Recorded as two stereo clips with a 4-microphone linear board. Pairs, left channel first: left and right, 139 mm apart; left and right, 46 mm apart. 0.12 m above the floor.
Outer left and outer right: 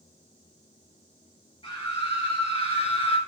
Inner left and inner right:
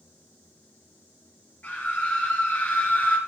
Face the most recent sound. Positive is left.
turn(degrees=45)  # may be behind; listen again after turning